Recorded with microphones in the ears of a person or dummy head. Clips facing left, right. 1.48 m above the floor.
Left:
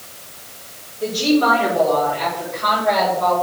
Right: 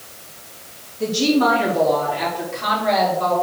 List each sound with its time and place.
1.0 s a woman speaking: 85° right, 3.5 m; by 3.4 s 70° right (ahead or behind), 6 m